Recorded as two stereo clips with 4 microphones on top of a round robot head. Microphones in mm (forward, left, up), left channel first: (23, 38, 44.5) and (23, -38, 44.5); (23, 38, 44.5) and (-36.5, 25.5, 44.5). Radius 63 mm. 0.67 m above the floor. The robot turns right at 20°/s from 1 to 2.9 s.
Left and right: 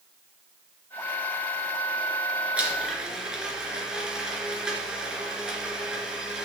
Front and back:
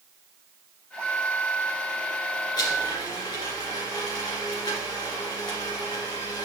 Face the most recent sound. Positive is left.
turn(degrees=-10)